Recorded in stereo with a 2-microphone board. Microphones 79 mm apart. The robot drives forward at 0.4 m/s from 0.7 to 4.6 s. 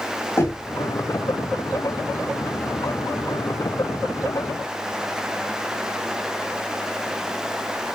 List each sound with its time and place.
0.4 s knocking: 35° left (ahead or behind), 3.5 m